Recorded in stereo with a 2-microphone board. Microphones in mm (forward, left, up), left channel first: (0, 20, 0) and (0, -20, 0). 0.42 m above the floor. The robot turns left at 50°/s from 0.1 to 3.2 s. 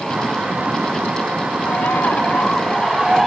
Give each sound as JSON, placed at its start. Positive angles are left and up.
{"t": 1.7, "sound": "a bird", "azimuth_deg": 65, "distance_m": 0.9}